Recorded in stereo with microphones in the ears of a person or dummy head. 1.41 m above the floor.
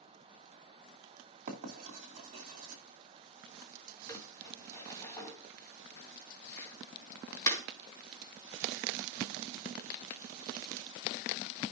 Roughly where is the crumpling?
Centre.